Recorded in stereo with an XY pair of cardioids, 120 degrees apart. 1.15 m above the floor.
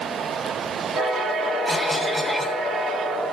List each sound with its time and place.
1.6 s a cough: 20° right, 3.5 m